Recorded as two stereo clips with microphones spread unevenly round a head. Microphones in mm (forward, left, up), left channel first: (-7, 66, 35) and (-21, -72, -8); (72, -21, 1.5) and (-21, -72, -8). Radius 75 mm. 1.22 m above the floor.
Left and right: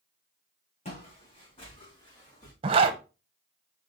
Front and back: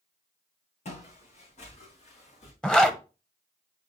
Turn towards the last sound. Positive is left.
turn(degrees=-55)